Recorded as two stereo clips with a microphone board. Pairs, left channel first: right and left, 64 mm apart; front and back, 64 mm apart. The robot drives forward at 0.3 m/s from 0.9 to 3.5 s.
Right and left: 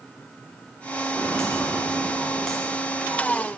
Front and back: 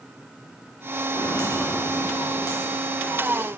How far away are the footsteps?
About 7 m.